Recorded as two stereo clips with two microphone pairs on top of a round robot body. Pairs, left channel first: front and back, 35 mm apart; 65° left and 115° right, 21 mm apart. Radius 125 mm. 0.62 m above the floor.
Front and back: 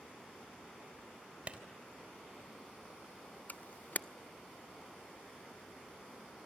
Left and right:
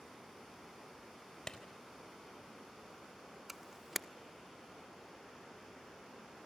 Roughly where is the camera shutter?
Ahead right.